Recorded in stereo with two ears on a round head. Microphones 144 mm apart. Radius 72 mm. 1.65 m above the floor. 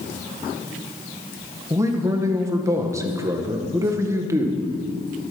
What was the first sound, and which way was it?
A man speaking, 20° right (ahead or behind).